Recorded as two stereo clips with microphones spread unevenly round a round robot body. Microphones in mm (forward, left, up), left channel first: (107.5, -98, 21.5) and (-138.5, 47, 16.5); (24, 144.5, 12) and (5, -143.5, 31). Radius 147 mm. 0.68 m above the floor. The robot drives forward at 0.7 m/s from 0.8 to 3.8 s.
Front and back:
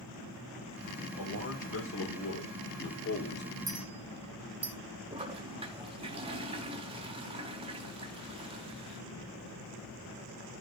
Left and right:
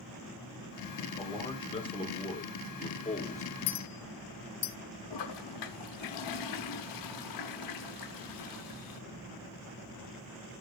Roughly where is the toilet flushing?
Left.